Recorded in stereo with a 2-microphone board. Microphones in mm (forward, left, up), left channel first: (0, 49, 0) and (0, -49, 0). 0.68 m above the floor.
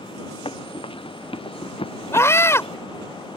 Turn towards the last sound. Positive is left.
turn(degrees=30)  # may be behind; listen again after turning